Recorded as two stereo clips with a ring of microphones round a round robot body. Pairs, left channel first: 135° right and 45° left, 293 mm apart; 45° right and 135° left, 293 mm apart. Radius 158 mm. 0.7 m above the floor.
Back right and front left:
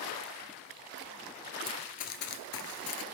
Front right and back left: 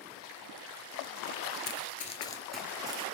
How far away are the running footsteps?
About 0.8 m.